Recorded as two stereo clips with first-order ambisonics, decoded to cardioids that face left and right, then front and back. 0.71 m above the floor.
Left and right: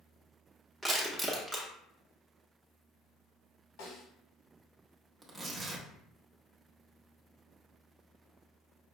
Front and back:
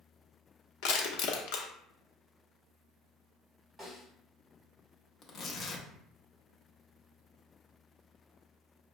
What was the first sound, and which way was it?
Crushing, 5° left.